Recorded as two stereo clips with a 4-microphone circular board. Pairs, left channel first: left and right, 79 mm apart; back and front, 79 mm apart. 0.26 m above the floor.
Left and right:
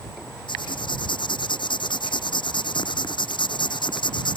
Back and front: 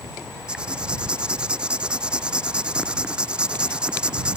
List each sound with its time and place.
0.5 s writing: 80° left